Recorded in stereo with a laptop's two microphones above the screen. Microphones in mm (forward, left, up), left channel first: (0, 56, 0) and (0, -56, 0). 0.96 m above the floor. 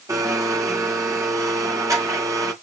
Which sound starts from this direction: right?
A blender, at 0.1 s.